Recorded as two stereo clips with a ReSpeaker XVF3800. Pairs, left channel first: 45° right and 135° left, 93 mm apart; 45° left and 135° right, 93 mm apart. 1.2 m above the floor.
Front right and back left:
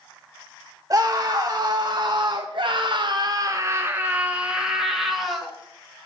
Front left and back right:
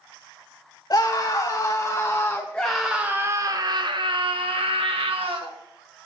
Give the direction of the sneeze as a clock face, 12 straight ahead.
No sneeze in this recording.